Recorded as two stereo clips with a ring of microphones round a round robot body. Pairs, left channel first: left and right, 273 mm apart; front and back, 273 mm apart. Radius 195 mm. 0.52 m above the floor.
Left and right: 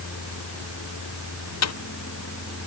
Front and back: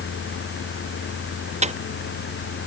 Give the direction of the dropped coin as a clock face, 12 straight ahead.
8 o'clock.